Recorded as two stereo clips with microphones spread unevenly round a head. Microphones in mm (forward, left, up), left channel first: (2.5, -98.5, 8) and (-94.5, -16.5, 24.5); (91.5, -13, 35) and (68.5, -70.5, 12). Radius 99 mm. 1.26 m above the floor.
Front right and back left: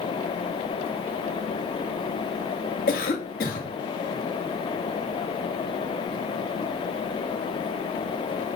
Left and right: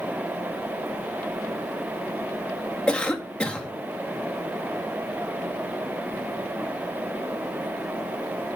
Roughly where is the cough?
Ahead.